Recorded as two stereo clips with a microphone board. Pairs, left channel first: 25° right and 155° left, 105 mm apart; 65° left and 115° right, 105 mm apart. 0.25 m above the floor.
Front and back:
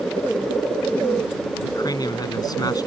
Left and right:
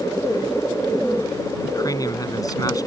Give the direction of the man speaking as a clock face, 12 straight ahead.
11 o'clock.